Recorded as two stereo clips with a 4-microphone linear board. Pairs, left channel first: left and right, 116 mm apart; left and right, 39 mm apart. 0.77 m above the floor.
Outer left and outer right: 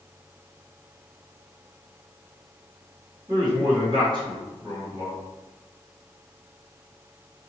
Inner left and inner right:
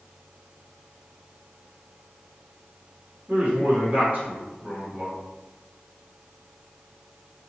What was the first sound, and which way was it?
A man speaking, 40° right (ahead or behind).